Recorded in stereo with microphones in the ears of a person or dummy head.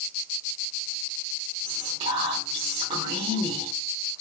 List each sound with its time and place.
1.6 s whispering: 35° right (ahead or behind), 1.0 m